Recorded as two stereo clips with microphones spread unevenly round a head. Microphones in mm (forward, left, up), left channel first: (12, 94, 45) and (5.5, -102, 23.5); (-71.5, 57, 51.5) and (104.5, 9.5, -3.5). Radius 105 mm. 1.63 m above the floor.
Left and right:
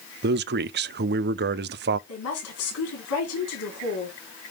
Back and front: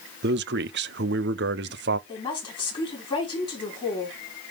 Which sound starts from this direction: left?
A woman speaking, at 2.1 s.